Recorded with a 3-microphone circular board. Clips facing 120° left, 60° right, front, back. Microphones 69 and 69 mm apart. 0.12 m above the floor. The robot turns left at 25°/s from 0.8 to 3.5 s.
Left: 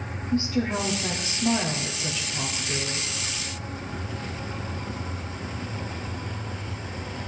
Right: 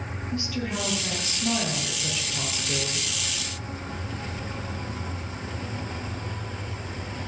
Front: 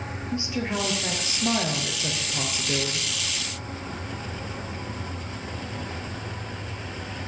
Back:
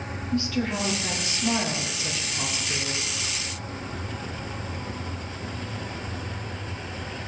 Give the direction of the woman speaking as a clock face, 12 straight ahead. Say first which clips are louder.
Left 6 dB, back 2 dB; 10 o'clock.